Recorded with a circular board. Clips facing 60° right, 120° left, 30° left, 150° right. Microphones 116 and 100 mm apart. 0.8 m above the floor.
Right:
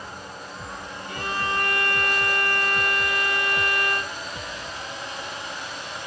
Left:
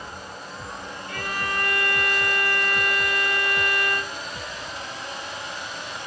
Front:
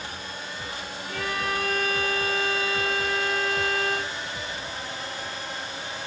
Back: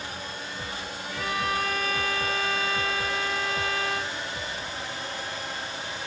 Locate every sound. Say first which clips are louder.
1.1 s a violin: right 2 dB, even; 5° left, 1.7 m